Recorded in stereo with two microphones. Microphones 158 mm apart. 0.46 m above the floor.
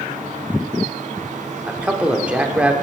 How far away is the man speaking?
About 0.8 m.